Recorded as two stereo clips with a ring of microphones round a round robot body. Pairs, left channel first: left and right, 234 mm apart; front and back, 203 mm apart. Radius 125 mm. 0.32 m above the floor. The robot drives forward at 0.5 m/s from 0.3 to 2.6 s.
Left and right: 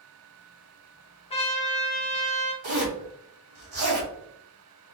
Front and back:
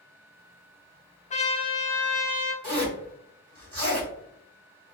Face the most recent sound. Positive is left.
turn(degrees=-130)